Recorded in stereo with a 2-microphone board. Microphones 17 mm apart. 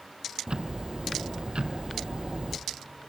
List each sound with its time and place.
0.5 s ticking: 55° right (ahead or behind), 0.7 m